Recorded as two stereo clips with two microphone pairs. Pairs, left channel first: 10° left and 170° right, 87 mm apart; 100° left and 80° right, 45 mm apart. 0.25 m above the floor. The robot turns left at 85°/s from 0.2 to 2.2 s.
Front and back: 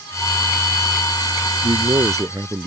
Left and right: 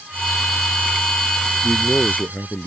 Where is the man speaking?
175° right; by 2.7 s 135° left.